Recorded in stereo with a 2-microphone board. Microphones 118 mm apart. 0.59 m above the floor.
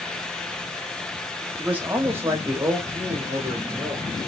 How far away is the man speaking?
About 1.2 m.